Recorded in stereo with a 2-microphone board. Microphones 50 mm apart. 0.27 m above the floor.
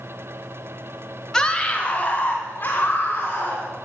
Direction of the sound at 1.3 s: 15° left (ahead or behind).